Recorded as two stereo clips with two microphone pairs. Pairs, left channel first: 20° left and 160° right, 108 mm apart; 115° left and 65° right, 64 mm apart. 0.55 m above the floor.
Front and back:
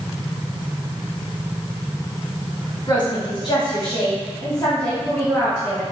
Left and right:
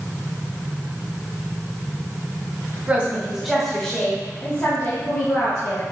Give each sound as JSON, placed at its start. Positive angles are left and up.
{"t": 2.9, "sound": "a woman speaking", "azimuth_deg": -10, "distance_m": 1.6}